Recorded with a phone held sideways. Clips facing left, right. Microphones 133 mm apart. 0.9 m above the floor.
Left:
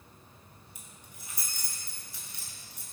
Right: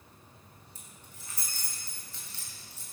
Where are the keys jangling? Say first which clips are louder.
Even; 15° left (ahead or behind), 3 m.